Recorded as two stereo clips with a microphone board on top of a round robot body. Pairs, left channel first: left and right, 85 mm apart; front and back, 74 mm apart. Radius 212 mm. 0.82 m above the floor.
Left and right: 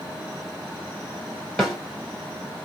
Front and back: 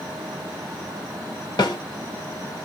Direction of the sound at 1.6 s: 10° left.